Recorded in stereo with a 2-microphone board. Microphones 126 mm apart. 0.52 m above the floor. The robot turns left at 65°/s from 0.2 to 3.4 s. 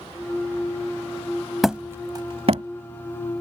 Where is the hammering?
Centre (ahead or behind); by 2.6 s 65° right (ahead or behind).